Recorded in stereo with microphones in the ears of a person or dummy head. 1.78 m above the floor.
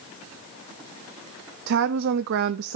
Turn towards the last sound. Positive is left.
turn(degrees=-55)  # may be behind; listen again after turning